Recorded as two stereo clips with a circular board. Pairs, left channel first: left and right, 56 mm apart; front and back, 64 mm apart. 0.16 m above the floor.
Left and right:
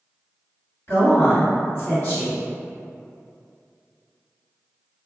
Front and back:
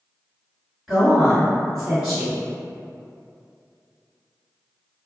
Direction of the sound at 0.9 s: 95° left.